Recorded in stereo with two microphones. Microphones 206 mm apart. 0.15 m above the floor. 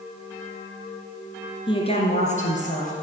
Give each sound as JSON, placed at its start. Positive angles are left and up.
{"t": 1.7, "sound": "a woman speaking", "side_deg": 25, "distance_m": 1.8}